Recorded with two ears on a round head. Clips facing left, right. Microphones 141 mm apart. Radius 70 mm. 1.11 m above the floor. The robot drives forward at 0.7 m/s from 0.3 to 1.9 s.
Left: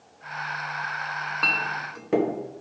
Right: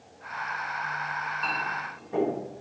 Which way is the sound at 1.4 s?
75° left (ahead or behind).